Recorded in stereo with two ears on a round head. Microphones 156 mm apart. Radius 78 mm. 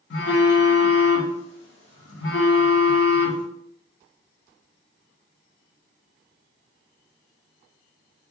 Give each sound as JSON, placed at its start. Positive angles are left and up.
{"t": 0.1, "sound": "a phone buzzing", "side_deg": 65, "distance_m": 0.8}